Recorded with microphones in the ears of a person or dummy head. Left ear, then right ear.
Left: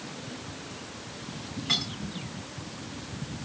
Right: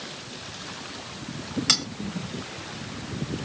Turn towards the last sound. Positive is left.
turn(degrees=-35)  # may be behind; listen again after turning